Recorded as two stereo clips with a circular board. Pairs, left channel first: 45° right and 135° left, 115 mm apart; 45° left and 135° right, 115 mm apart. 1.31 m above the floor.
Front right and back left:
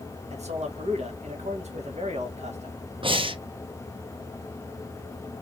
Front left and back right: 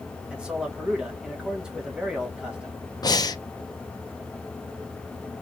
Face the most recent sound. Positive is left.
turn(degrees=100)